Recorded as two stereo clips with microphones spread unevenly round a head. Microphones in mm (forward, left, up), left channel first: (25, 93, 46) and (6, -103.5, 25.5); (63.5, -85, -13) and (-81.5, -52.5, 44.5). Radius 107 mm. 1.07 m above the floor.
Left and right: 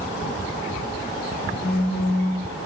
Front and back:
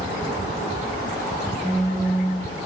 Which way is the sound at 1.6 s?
45° left.